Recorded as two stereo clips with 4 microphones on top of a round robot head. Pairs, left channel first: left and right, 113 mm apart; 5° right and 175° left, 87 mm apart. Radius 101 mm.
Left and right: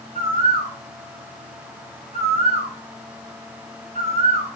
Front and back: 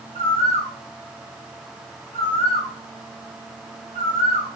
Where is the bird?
45° right, 0.9 m.